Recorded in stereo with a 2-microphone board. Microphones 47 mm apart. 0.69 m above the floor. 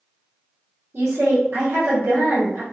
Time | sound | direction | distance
0.9 | a woman speaking | 65° right (ahead or behind) | 1.4 m